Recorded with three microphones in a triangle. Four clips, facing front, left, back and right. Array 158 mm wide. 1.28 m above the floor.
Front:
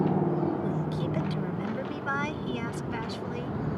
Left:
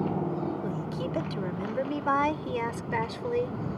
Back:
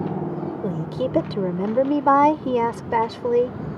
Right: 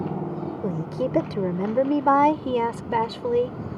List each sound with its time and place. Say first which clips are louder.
0.6 s a woman speaking: right 6 dB, back 5 dB; 140° right; by 3.6 s 160° right